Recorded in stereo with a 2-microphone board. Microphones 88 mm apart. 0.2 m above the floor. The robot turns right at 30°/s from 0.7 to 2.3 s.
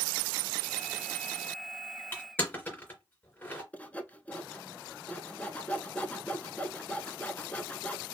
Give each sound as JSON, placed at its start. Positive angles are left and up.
{"t": 2.1, "sound": "crushing", "side_deg": 25, "distance_m": 2.5}
{"t": 3.7, "sound": "sawing", "side_deg": 20, "distance_m": 0.6}